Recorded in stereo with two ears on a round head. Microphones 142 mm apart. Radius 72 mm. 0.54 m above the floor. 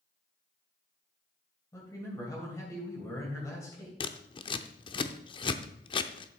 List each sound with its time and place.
1.7 s a man speaking: 20° left (ahead or behind), 3 m
4.0 s scissors: 30° left (ahead or behind), 0.6 m